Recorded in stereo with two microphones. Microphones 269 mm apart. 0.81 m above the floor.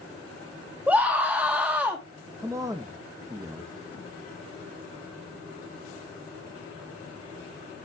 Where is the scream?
5° right (ahead or behind), 1.2 m.